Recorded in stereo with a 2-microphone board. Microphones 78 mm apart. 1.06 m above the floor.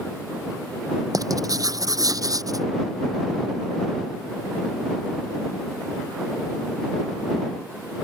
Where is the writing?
50° right (ahead or behind).